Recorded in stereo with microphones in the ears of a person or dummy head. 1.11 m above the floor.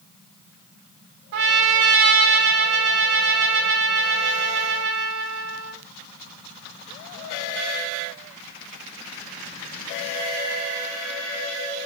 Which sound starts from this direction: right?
A trumpet, at 1.3 s.